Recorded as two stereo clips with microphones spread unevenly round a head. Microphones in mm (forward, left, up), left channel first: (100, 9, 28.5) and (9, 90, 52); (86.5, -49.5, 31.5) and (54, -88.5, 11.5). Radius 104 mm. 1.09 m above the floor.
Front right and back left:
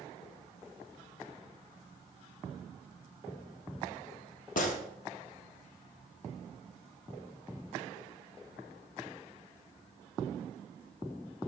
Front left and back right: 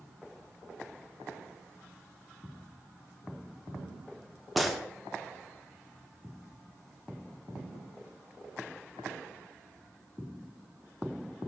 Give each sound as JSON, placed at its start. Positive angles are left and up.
{"t": 4.6, "sound": "a gunshot", "azimuth_deg": -30, "distance_m": 1.3}